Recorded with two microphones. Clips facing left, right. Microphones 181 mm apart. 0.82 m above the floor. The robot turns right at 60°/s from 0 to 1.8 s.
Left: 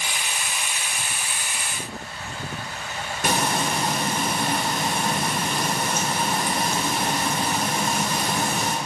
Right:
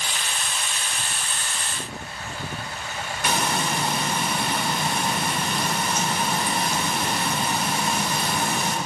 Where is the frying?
45° left (ahead or behind), 2.5 m.